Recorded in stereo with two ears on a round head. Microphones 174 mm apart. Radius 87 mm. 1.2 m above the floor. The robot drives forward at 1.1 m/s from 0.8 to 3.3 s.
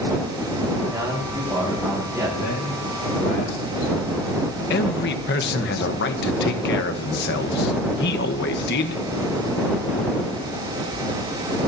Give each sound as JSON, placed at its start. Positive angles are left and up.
{"t": 0.9, "sound": "a man speaking", "side_deg": -10, "distance_m": 7.0}
{"t": 2.4, "sound": "a man speaking", "side_deg": 70, "distance_m": 7.5}
{"t": 4.7, "sound": "a man speaking", "side_deg": 60, "distance_m": 1.3}